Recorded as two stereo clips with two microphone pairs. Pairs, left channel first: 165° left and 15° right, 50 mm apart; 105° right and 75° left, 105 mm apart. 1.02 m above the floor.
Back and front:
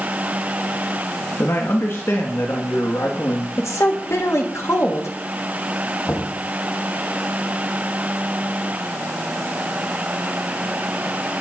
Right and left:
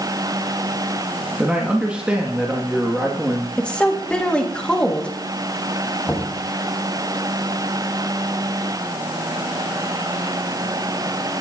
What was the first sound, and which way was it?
A man speaking, 155° left.